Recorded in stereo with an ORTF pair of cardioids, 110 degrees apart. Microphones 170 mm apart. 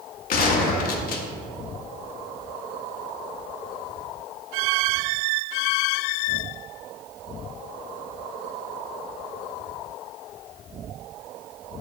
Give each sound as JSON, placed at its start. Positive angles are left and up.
{"t": 0.3, "sound": "a gunshot", "azimuth_deg": 60, "distance_m": 0.9}